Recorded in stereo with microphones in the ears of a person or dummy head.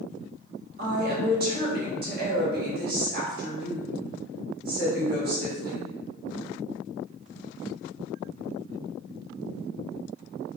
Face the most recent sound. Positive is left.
turn(degrees=-45)  # may be behind; listen again after turning